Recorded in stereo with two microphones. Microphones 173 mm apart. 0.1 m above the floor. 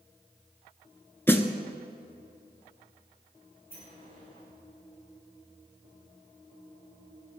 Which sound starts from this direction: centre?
A snare drum, at 1.3 s.